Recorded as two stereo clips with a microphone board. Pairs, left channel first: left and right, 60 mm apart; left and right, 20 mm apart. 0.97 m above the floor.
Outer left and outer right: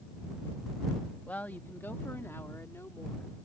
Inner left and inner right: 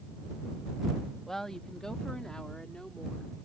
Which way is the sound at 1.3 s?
25° left (ahead or behind).